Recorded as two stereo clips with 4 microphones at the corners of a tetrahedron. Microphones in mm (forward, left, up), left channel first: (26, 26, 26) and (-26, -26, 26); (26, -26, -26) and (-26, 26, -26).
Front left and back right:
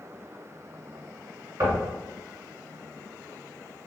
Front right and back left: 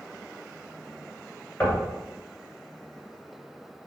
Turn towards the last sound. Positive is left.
turn(degrees=-100)